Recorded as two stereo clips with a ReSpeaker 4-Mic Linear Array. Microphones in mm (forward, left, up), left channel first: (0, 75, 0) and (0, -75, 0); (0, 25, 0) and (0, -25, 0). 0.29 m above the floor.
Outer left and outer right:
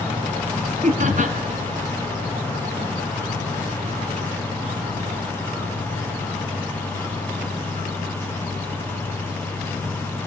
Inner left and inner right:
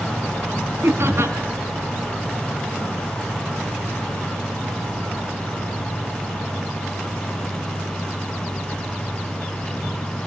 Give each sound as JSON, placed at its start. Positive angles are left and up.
{"t": 0.8, "sound": "laughter", "side_deg": -60, "distance_m": 2.0}